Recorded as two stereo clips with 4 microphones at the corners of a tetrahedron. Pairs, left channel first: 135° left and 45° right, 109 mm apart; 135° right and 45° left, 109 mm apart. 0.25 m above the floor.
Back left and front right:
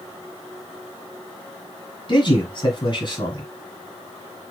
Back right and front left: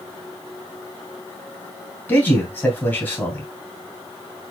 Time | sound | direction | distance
2.1 | a man speaking | 155° left | 2 m